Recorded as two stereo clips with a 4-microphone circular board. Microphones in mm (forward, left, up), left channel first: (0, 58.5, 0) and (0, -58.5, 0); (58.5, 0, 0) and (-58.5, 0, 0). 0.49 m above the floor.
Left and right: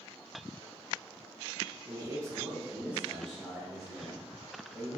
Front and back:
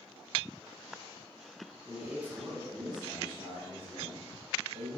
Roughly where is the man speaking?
Right.